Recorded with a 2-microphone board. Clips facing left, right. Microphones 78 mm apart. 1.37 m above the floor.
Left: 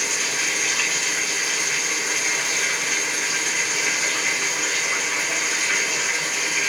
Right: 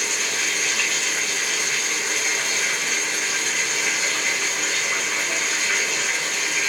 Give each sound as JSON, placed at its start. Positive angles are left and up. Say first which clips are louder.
{"t": 0.0, "sound": "running water", "louder": "even", "side_deg": 0, "distance_m": 1.2}